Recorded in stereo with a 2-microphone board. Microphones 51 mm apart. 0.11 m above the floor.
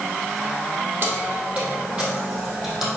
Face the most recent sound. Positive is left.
turn(degrees=-10)  # may be behind; listen again after turning